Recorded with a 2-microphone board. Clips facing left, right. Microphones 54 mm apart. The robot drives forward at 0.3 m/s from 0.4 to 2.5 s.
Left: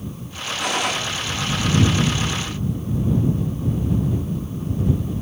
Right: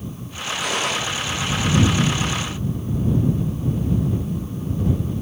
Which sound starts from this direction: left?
A gunshot, at 0.6 s.